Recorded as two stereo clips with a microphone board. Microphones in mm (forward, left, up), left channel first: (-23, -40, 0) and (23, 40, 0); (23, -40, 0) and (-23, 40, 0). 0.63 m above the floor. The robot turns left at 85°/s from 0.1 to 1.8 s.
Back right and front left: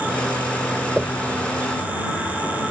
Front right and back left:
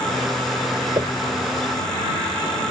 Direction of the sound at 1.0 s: 140° left.